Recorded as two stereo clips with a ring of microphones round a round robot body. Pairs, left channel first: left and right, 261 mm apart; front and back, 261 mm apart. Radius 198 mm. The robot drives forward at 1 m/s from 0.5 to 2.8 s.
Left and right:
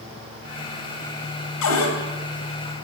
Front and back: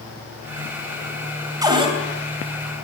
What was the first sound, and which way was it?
A cupboard door, 105° left.